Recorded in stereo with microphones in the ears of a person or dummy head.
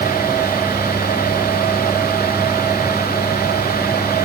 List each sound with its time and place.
Only background noise.